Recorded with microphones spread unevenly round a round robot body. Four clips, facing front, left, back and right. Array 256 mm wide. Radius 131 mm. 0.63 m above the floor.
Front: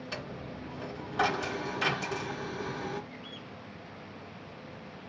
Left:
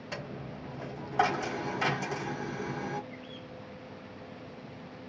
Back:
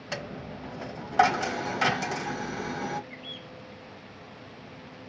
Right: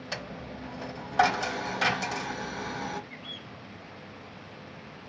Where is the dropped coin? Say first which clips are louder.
Right 1 dB, back 7 dB; 145° right, 1.1 m.